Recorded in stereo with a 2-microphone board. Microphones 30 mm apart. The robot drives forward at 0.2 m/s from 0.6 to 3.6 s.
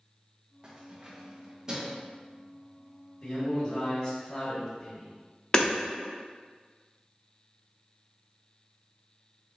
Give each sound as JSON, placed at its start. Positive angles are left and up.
{"t": 0.6, "sound": "keys jangling", "side_deg": -25, "distance_m": 1.0}
{"t": 3.2, "sound": "a man speaking", "side_deg": 55, "distance_m": 1.4}
{"t": 5.5, "sound": "hammering", "side_deg": 30, "distance_m": 0.6}